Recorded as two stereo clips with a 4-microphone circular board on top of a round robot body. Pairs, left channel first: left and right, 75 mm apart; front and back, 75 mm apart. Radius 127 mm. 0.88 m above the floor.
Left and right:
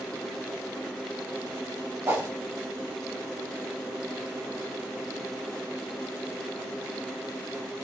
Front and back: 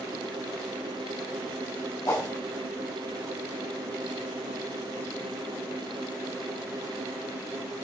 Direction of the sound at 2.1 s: 35° right.